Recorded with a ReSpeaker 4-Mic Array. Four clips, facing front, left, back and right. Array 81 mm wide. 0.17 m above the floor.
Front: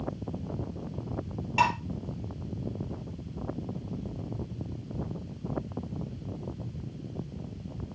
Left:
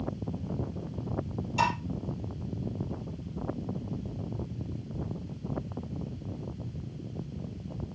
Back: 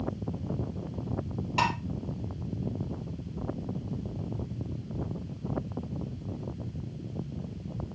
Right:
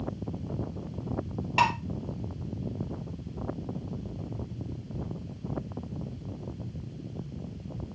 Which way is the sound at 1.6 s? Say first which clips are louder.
Right 3 dB, front 3 dB; 90° right.